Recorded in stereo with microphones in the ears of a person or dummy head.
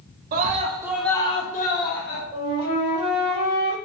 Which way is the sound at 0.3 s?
50° right (ahead or behind).